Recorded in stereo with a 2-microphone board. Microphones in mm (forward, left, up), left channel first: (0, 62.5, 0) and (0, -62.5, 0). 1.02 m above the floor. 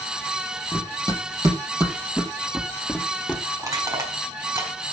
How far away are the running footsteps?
About 2 m.